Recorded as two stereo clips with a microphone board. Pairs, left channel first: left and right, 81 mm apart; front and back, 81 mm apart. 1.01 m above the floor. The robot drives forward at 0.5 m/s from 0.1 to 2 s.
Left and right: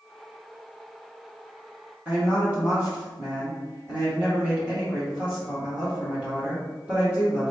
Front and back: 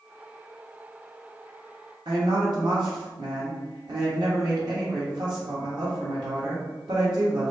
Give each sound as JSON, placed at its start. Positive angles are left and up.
{"t": 2.0, "sound": "a woman speaking", "azimuth_deg": -165, "distance_m": 1.3}